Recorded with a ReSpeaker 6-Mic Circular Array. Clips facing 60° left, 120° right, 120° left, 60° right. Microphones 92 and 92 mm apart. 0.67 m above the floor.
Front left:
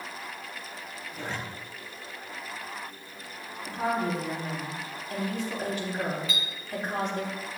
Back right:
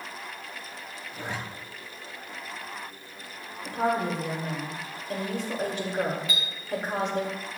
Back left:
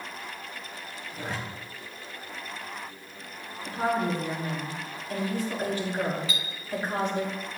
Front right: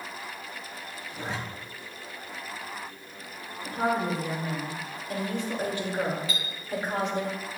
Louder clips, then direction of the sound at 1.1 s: Back right 1 dB, even; 70° right.